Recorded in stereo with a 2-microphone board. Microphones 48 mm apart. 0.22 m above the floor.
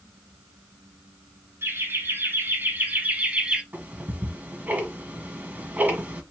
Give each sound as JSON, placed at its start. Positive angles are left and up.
{"t": 1.6, "sound": "laughter", "side_deg": -60, "distance_m": 3.0}
{"t": 3.7, "sound": "ticking", "side_deg": -40, "distance_m": 1.7}